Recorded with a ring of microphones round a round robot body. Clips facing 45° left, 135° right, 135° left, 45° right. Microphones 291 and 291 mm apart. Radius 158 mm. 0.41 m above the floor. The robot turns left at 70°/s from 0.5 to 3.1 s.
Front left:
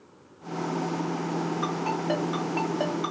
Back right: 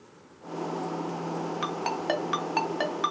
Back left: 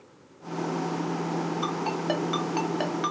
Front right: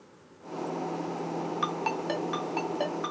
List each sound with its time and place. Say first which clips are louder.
1.6 s a ringtone: front left 3 dB, back left 3 dB; 95° right, 1.5 m; by 3.1 s 160° left, 1.5 m